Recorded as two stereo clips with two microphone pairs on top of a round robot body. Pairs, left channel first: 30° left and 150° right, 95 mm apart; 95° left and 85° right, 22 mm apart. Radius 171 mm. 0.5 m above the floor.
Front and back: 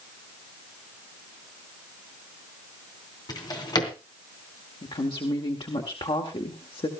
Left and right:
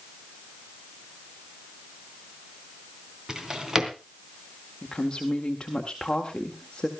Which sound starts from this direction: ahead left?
A woman speaking, at 4.8 s.